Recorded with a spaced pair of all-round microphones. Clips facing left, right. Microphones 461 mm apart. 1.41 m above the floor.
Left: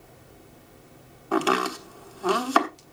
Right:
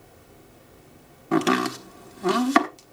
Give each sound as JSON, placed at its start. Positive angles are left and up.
{"t": 1.3, "sound": "chopping", "side_deg": -40, "distance_m": 1.1}